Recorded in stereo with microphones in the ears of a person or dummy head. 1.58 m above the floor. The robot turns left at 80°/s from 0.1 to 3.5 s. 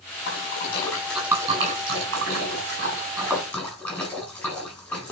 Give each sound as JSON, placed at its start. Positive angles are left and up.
{"t": 0.3, "sound": "a splash", "side_deg": 70, "distance_m": 8.5}